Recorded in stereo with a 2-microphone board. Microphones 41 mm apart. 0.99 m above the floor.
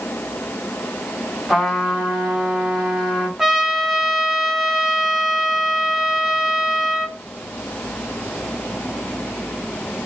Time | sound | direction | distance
1.5 | a trumpet | centre (ahead or behind) | 3 m
3.4 | a trumpet | 5° right (ahead or behind) | 1.1 m